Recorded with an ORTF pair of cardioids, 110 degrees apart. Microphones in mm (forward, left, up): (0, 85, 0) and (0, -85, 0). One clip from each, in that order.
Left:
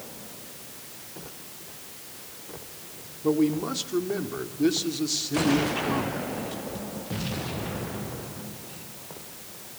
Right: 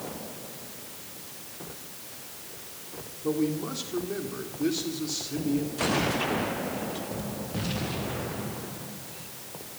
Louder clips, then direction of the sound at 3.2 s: Left 4 dB; 30° left.